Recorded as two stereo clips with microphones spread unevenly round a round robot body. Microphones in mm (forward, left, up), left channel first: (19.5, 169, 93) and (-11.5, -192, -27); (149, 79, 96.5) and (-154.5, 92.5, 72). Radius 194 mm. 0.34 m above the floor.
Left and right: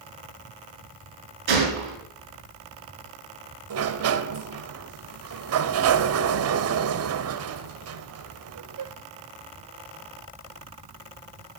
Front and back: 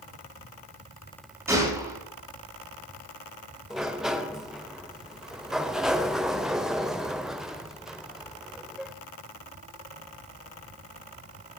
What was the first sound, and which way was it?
A gunshot, 100° right.